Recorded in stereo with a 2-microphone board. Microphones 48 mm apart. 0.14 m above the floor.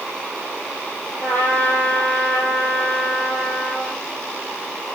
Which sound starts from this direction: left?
A trumpet, at 1.2 s.